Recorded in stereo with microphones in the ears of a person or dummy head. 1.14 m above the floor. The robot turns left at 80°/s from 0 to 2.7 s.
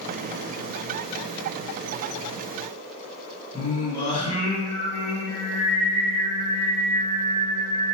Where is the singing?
25° left (ahead or behind), 1.6 m.